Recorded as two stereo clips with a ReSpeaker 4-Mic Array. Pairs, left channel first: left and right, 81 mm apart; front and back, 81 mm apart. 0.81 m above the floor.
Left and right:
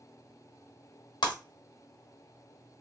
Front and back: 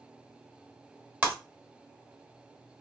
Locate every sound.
1.2 s breaking glass: 110° left, 1.3 m